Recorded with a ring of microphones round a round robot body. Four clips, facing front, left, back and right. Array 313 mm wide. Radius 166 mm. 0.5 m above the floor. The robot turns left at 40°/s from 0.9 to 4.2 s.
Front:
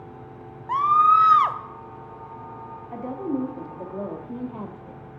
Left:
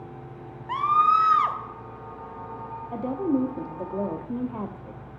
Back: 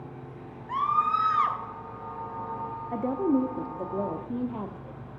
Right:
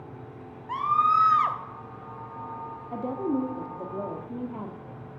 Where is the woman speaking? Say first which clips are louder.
Left 3 dB, back 3 dB; 160° left, 1.1 m; by 5.0 s 110° left, 1.1 m.